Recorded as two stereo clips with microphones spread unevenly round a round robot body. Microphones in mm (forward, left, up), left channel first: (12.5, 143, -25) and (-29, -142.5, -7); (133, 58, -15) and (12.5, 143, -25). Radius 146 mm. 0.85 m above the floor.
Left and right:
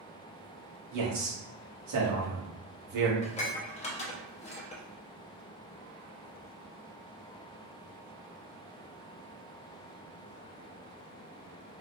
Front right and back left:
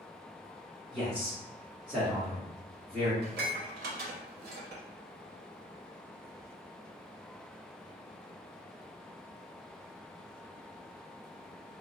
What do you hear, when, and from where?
0.9 s a man speaking: 130° right, 1.4 m
3.2 s dishes clattering: 150° left, 0.6 m